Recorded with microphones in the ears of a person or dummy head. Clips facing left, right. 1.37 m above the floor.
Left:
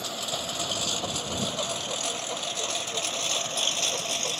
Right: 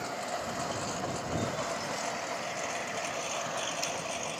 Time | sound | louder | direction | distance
0.0 | a lawn mower | even | 55° left (ahead or behind) | ?